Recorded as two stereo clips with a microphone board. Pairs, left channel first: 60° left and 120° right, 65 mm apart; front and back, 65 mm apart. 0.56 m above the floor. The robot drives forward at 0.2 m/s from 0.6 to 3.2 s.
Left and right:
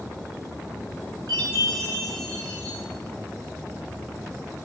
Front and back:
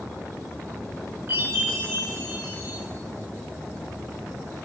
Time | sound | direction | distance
1.3 | a chime | 120° right | 8.5 m